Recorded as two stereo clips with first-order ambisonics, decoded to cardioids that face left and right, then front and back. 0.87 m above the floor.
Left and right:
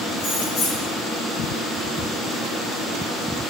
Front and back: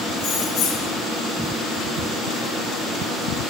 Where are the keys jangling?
40° left, 3 m.